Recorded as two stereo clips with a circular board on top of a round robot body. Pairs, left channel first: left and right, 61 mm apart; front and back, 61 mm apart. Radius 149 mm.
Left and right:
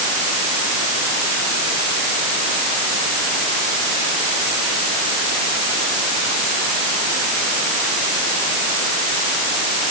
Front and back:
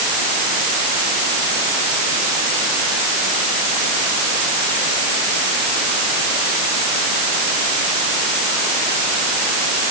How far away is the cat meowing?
I don't hear a cat meowing.